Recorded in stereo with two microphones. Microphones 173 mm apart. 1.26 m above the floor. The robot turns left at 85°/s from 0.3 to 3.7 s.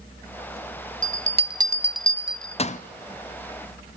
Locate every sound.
1.0 s a bell: 50° right (ahead or behind), 0.5 m; by 2.8 s 45° left (ahead or behind), 0.5 m